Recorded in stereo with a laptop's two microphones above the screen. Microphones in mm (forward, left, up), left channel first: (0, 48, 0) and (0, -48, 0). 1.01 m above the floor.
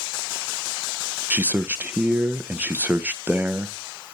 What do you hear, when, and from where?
1.3 s a man speaking: 15° right (ahead or behind), 0.5 m